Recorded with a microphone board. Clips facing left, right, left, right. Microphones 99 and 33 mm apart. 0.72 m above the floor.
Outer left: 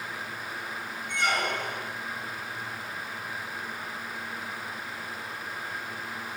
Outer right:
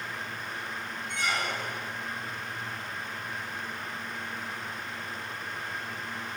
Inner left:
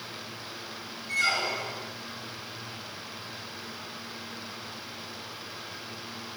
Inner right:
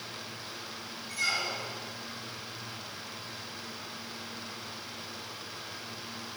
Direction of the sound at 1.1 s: 55° left (ahead or behind).